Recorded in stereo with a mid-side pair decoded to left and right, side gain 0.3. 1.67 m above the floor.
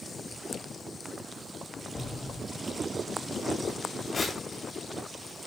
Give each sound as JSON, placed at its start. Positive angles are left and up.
{"t": 1.9, "sound": "an explosion", "azimuth_deg": 50, "distance_m": 2.5}
{"t": 4.1, "sound": "tearing paper", "azimuth_deg": 55, "distance_m": 9.0}